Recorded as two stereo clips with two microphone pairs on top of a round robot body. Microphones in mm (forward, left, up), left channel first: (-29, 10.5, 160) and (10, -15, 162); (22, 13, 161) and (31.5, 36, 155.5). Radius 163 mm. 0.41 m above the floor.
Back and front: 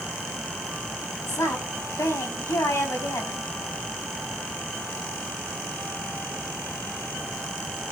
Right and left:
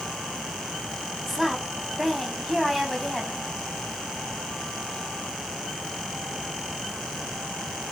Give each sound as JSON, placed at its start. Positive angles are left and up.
{"t": 1.3, "sound": "a woman speaking", "azimuth_deg": 155, "distance_m": 5.0}